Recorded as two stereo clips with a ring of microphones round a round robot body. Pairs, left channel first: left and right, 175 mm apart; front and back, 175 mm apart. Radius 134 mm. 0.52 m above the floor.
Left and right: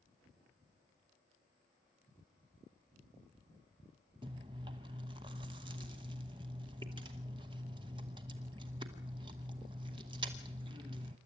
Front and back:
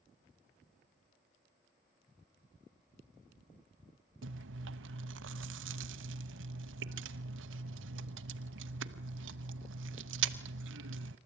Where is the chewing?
160° right, 0.8 m.